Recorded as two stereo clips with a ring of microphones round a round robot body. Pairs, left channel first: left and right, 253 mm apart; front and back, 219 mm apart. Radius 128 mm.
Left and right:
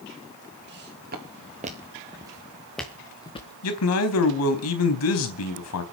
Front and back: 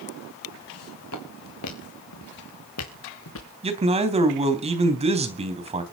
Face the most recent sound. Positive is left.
turn(degrees=120)